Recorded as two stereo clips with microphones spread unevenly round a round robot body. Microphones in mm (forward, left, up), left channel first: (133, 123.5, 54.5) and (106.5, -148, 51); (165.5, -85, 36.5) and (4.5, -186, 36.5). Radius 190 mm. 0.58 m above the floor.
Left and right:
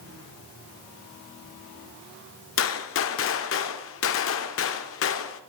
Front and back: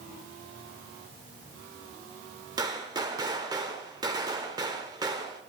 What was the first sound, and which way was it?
A gunshot, 135° left.